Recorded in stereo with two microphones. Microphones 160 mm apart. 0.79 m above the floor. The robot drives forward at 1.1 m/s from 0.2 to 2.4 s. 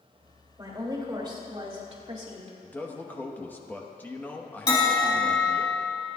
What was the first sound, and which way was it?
A woman speaking, 25° right (ahead or behind).